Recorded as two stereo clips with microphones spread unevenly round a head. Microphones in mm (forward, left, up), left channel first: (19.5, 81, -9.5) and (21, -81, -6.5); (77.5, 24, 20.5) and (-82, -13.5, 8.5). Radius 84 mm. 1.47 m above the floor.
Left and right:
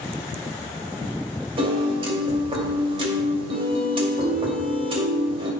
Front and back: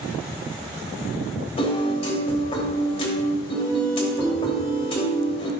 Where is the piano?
40° right, 2.5 m.